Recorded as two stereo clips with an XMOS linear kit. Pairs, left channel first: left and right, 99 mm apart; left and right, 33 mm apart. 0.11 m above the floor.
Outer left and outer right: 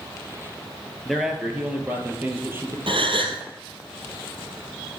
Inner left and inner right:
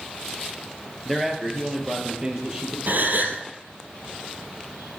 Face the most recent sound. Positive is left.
turn(degrees=-60)  # may be behind; listen again after turning